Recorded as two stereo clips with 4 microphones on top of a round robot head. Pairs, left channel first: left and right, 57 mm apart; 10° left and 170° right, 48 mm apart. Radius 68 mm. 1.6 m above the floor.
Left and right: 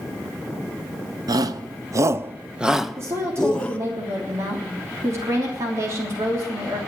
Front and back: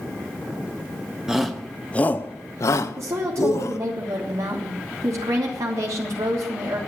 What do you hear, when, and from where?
1.3 s a shout: 90° right, 1.3 m; by 3.8 s 20° left, 2 m
3.0 s a woman speaking: 140° right, 3 m